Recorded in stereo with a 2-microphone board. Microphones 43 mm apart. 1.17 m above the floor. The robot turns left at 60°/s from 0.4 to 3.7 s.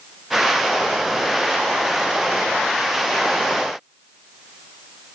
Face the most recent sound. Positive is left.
No sound to turn to.